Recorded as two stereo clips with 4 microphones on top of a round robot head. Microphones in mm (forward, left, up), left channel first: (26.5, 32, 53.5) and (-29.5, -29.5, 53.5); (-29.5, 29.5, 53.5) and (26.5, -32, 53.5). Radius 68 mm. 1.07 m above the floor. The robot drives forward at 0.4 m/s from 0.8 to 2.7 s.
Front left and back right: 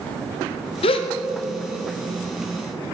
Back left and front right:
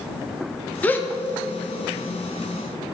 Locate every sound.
0.8 s a gasp: 60° left, 0.5 m; by 2.9 s 135° left, 0.7 m